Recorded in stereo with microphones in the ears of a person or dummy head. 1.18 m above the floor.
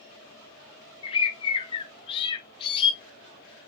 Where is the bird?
25° left (ahead or behind), 1.5 m.